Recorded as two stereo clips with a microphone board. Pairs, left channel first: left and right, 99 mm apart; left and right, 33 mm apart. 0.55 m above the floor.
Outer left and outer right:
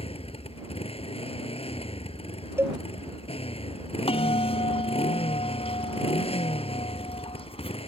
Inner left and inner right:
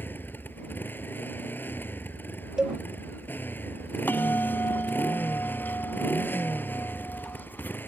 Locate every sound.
0.0 s a motorcycle: 85° left
2.6 s a cowbell: 25° right (ahead or behind)
4.1 s a bell: 80° left